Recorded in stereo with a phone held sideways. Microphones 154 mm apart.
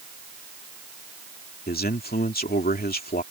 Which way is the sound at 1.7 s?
90° left.